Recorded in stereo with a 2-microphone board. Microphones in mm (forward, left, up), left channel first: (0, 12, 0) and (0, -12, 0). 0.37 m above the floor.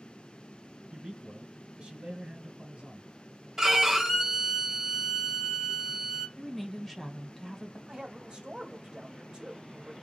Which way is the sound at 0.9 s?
60° right (ahead or behind).